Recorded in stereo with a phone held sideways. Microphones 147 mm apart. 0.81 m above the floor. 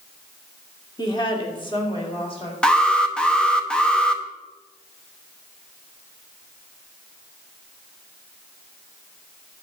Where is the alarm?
5° left (ahead or behind), 0.8 m.